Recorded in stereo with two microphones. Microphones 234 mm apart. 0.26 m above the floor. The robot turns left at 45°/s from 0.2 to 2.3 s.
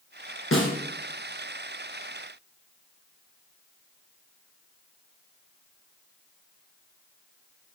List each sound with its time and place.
0.5 s a snare drum: 65° left (ahead or behind), 2 m; by 0.8 s 55° left (ahead or behind), 2 m